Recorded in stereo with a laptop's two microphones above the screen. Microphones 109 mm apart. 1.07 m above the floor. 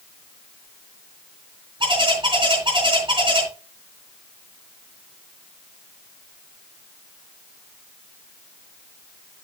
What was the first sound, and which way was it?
A bird, 50° right (ahead or behind).